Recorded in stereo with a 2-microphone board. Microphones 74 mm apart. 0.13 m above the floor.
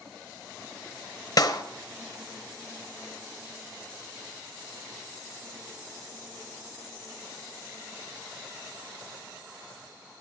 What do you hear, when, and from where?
1.4 s a clap: 50° left (ahead or behind), 1.8 m